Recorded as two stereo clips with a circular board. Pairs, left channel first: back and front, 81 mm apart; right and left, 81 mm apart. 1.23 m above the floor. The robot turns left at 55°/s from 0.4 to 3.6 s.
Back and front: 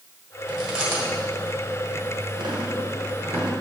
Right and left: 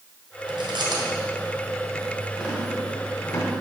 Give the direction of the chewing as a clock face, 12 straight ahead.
9 o'clock.